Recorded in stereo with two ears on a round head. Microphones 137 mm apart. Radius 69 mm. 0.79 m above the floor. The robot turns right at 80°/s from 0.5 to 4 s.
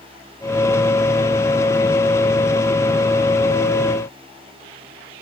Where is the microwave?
I don't hear a microwave.